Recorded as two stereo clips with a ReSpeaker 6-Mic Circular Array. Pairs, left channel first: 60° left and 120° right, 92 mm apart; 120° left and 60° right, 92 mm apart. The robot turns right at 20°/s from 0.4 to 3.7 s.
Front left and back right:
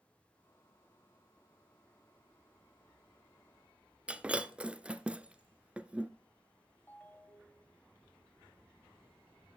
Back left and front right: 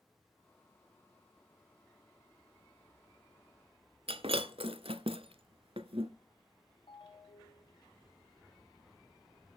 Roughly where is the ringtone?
Behind left.